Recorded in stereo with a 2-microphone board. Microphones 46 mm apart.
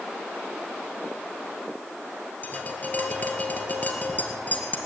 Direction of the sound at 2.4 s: 35° left (ahead or behind).